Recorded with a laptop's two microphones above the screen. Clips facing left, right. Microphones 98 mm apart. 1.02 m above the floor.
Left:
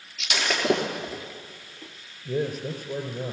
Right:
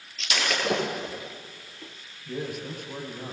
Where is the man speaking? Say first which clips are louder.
Left 5 dB; 45° left (ahead or behind), 4.5 m.